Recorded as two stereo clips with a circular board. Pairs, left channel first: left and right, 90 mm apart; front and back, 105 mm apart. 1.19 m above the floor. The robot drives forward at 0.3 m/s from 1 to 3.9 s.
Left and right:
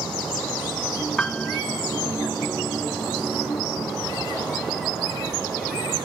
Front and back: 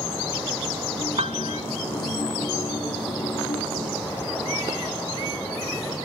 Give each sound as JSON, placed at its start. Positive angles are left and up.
{"t": 1.2, "sound": "a piano", "azimuth_deg": 170}